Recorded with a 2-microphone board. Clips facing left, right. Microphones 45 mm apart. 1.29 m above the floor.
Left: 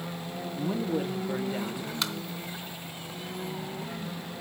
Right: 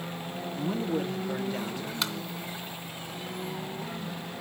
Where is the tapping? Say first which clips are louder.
Even; centre (ahead or behind), 1.4 m.